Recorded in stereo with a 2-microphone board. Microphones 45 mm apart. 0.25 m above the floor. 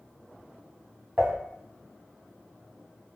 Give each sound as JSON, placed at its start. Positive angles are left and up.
{"t": 1.2, "sound": "dishes clattering", "side_deg": -40, "distance_m": 1.2}